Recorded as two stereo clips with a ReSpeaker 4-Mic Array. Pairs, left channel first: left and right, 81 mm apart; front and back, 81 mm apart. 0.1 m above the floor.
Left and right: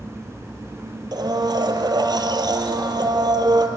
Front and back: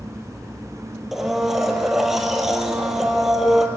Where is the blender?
95° right, 2.5 m.